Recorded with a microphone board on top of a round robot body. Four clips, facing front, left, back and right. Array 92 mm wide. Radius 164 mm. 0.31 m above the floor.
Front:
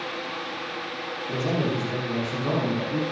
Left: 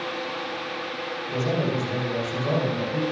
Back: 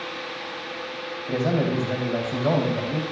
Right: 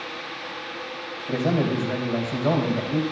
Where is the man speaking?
140° right, 4 m.